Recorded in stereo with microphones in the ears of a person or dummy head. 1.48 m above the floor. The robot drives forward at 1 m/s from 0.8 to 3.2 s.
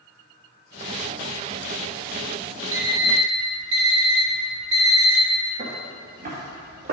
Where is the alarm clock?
30° right (ahead or behind), 2.5 m; by 5.2 s 35° right (ahead or behind), 1.9 m.